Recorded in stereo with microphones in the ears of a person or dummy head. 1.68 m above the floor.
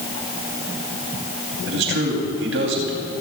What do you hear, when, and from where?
1.7 s a man speaking: 80° right, 3.5 m